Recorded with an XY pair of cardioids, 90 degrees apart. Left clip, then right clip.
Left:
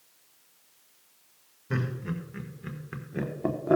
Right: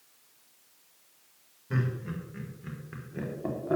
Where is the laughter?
40° left, 4 m; by 3.8 s 50° left, 2.5 m.